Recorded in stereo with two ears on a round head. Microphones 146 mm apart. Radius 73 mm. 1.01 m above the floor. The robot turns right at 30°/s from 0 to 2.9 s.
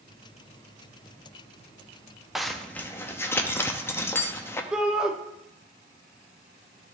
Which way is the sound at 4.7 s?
5° right (ahead or behind).